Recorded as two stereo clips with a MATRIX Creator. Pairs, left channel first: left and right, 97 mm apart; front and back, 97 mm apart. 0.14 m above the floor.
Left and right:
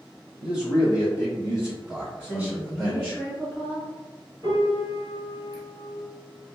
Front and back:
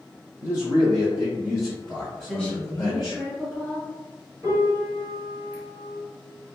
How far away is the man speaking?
About 1.7 m.